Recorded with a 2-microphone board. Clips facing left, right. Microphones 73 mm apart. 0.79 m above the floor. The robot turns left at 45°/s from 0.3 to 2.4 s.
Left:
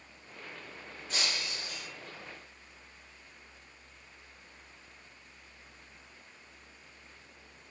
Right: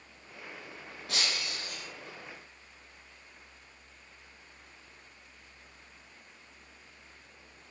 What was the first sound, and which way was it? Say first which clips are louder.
Breaking glass: right 1 dB; 100° right.